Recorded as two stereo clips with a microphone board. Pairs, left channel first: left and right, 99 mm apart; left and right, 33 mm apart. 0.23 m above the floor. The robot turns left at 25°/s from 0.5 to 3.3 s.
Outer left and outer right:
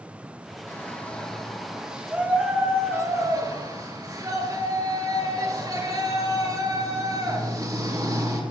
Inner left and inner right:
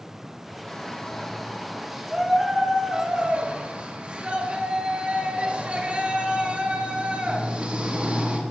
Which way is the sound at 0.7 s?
25° left.